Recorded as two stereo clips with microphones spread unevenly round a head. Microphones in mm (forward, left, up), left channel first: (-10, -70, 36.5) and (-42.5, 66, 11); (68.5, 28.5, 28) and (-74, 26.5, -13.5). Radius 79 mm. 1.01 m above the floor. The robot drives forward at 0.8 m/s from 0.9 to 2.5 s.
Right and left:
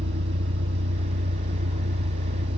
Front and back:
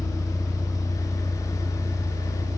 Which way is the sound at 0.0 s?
85° left.